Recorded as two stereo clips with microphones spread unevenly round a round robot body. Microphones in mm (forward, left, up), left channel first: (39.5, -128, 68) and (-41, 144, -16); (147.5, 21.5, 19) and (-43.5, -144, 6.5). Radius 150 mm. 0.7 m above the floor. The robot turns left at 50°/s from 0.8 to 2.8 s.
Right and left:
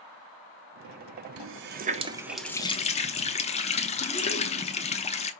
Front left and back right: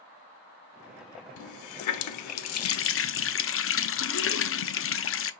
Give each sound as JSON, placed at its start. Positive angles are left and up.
{"t": 1.4, "sound": "a running tap", "azimuth_deg": 70, "distance_m": 0.6}